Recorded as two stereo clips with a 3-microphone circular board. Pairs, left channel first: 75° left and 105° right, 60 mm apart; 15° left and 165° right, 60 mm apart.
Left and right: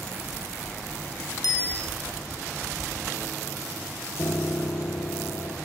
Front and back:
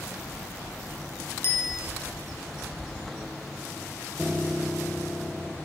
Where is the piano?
115° left, 1.4 m.